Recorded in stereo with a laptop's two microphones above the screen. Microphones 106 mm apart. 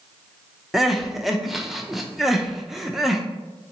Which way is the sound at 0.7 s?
5° right (ahead or behind).